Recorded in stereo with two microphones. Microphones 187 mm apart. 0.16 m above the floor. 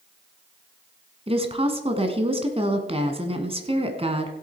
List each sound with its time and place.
1.3 s a woman speaking: 35° right (ahead or behind), 1.4 m